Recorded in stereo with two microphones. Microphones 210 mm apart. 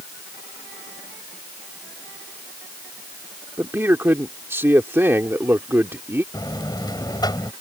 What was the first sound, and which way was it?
A man speaking, 10° right (ahead or behind).